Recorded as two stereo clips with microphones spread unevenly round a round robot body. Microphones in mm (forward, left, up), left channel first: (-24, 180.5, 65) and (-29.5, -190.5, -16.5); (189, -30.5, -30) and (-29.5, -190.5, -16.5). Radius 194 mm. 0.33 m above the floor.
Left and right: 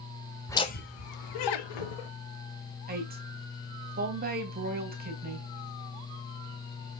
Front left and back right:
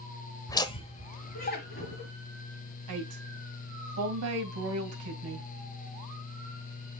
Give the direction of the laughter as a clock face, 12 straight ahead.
1 o'clock.